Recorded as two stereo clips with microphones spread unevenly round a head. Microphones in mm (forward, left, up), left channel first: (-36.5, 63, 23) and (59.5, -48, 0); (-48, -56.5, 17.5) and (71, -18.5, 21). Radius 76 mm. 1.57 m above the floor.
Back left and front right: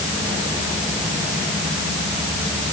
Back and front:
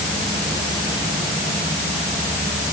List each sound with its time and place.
Only background noise.